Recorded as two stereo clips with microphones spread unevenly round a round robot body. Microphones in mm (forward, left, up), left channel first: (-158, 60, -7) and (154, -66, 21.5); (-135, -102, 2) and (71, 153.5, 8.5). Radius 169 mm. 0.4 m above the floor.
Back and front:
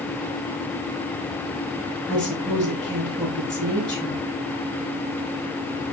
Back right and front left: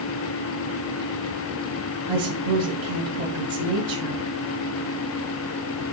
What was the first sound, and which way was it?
A woman speaking, 70° left.